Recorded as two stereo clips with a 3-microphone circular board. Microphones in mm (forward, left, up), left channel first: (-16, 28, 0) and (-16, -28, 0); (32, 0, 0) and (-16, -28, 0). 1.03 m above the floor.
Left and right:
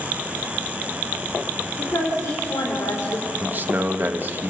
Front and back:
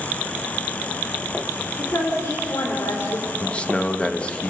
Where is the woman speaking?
65° left, 3.5 m.